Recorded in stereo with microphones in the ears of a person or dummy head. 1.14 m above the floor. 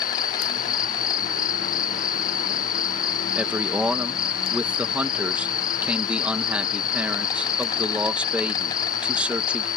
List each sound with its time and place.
0.0 s an insect: 25° left (ahead or behind)
3.4 s a man speaking: 10° right (ahead or behind)